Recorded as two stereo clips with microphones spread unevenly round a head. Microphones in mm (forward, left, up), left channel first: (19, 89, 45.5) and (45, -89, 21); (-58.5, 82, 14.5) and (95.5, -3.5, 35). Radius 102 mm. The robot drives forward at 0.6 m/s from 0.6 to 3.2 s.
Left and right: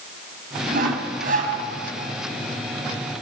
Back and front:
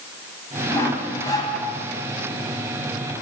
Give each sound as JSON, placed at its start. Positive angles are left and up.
{"t": 0.7, "sound": "sawing", "azimuth_deg": -130, "distance_m": 3.5}